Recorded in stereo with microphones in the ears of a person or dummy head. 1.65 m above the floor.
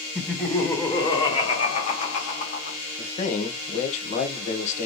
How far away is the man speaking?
About 1.2 m.